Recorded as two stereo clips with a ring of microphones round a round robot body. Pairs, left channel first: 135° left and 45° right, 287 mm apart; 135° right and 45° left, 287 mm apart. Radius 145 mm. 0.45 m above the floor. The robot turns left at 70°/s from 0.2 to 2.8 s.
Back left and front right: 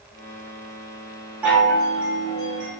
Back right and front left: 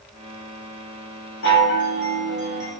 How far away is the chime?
About 1.5 m.